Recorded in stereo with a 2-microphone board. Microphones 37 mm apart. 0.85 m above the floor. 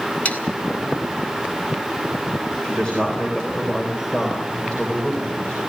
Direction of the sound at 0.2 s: 40° left (ahead or behind).